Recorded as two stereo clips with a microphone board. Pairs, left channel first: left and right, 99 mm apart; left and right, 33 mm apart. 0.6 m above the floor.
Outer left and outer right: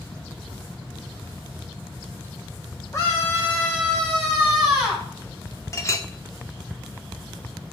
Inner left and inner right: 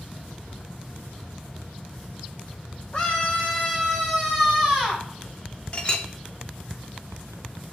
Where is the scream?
30° left (ahead or behind), 1.2 m; by 5.1 s 5° right (ahead or behind), 2.5 m.